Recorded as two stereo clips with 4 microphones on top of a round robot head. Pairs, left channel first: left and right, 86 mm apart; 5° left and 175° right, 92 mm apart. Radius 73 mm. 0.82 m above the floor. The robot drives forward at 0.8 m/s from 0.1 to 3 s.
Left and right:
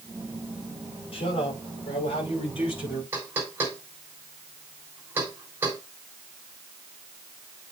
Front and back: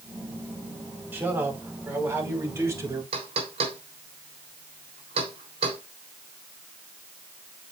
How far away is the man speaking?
About 5.5 m.